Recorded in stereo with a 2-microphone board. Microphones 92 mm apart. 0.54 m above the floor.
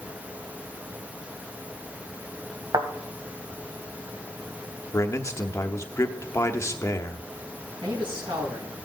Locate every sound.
2.7 s a thud: 50° right (ahead or behind), 1.7 m
4.9 s a man speaking: 30° left (ahead or behind), 1.0 m
7.8 s a man speaking: 70° right (ahead or behind), 5.5 m